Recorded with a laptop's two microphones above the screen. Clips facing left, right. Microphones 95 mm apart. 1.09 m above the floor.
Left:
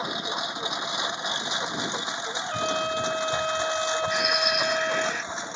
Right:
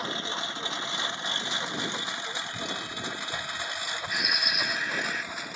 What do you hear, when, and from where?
0.0 s a lawn mower: 15° left (ahead or behind); by 5.6 s 25° left (ahead or behind)
2.4 s a trumpet: 65° left (ahead or behind)
4.1 s a bird: centre (ahead or behind)